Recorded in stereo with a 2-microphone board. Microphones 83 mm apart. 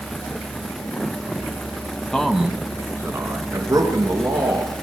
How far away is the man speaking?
About 1.5 m.